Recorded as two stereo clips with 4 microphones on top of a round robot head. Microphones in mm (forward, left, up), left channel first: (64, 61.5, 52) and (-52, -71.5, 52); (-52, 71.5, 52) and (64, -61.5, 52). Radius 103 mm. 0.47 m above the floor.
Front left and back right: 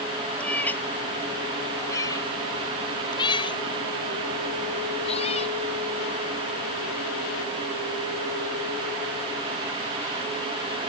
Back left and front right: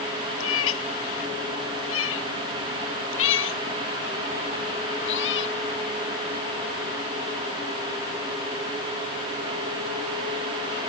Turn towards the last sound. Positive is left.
turn(degrees=110)